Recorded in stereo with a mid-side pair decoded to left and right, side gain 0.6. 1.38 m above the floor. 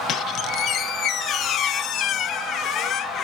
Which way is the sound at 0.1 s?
55° left.